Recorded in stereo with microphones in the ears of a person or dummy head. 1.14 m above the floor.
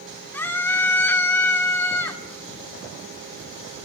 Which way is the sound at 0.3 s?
20° left (ahead or behind).